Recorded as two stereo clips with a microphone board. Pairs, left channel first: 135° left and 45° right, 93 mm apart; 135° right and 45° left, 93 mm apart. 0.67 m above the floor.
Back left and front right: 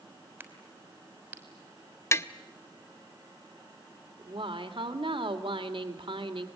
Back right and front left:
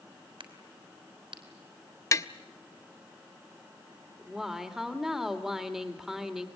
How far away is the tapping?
About 0.7 m.